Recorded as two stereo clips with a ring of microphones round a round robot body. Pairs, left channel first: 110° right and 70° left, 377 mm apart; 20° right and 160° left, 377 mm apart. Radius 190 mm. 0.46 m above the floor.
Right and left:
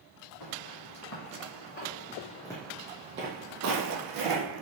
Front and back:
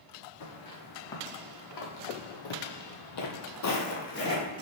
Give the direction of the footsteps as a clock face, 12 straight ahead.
2 o'clock.